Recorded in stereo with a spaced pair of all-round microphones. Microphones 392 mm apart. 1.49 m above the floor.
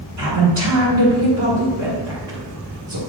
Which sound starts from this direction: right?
A woman speaking, at 0.2 s.